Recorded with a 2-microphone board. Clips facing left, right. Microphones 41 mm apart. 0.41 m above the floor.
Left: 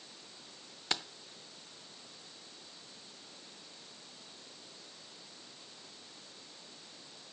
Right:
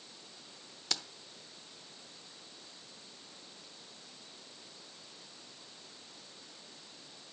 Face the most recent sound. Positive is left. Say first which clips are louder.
# left 3 dB
turn(degrees=25)  # may be behind; listen again after turning